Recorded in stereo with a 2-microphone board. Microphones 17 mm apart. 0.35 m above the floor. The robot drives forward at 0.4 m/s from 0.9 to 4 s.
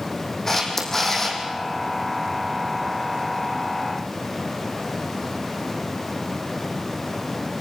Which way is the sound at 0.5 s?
25° left (ahead or behind).